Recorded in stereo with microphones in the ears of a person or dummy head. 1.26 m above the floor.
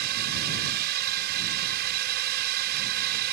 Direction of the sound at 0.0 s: 50° right (ahead or behind).